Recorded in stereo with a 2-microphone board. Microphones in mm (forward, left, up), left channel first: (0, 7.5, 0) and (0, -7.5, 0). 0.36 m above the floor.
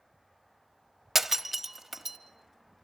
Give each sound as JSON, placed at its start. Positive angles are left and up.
{"t": 1.1, "sound": "breaking glass", "side_deg": -15, "distance_m": 0.9}